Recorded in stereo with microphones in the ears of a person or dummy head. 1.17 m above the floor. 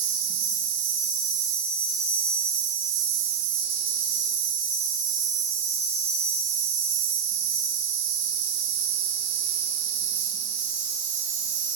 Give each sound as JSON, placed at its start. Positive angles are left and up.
{"t": 0.0, "sound": "an insect", "side_deg": -70, "distance_m": 0.8}